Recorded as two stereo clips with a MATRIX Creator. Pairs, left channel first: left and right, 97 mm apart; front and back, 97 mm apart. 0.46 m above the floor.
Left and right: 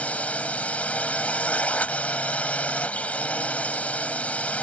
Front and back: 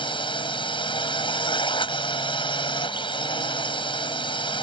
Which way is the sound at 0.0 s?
15° left.